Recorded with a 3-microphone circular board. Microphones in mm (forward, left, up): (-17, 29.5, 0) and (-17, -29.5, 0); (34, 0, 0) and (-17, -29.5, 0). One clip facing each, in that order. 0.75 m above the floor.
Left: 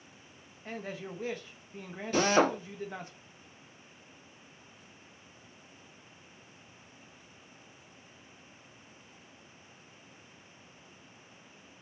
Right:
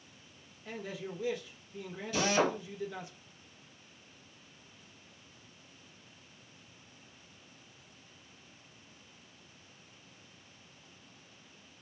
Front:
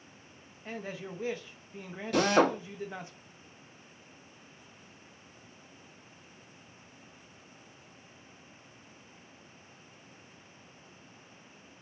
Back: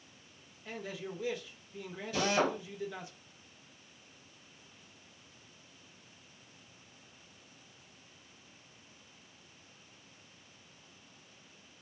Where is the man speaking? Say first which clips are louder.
Left 1 dB, front 2 dB; 65° left, 0.6 m.